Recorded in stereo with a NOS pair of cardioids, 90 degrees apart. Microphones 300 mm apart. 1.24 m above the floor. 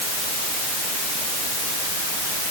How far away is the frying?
I don't hear frying.